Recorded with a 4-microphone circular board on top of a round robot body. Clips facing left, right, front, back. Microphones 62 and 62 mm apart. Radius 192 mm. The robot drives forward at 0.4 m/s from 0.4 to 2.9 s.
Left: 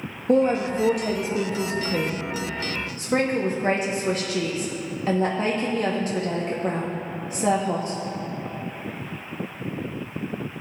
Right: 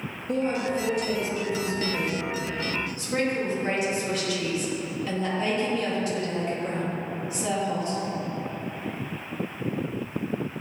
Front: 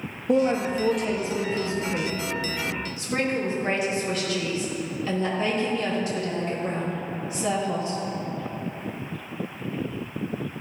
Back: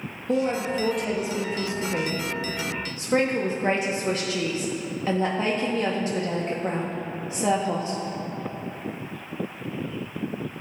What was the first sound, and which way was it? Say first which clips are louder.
A woman speaking: left 6 dB, front 3 dB; 75° left.